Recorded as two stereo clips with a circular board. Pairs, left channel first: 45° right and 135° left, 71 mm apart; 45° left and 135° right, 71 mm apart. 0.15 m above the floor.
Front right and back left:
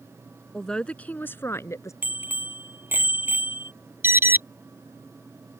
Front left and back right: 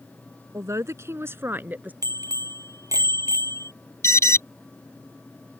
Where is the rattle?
No rattle in this recording.